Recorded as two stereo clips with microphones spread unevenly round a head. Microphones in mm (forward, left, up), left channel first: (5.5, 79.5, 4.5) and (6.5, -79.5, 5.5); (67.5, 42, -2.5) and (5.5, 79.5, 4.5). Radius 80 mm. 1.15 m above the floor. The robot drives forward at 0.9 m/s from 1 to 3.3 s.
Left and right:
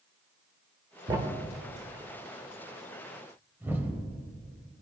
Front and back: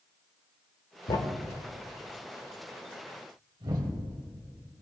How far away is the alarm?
I don't hear an alarm.